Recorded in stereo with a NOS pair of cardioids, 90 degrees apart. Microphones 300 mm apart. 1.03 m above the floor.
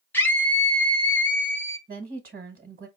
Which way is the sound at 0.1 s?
5° left.